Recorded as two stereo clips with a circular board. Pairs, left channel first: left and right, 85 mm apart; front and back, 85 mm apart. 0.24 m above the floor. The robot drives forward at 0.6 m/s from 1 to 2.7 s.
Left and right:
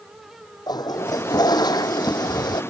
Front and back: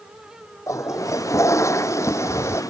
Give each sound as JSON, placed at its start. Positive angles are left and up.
{"t": 0.7, "sound": "a toilet flushing", "azimuth_deg": 50}